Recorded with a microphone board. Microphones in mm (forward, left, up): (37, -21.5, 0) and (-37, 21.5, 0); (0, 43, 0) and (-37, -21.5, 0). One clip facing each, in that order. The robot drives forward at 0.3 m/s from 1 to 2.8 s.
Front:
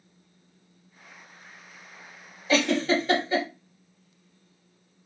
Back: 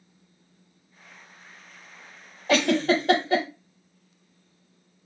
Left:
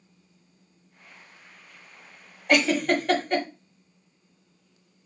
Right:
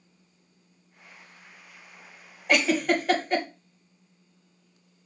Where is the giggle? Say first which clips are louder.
Back 2 dB, left 1 dB; 150° left, 0.8 m; by 3.5 s 155° left, 0.8 m.